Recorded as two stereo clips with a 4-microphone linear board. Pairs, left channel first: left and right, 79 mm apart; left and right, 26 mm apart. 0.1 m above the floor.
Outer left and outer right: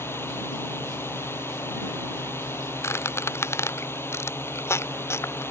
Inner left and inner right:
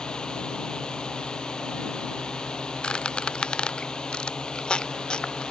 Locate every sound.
0.0 s a drone: 30° left (ahead or behind)
2.8 s a squeak: 35° left (ahead or behind)